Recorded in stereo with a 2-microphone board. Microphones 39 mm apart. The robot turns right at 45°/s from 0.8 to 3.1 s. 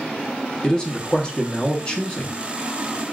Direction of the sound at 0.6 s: 20° left (ahead or behind).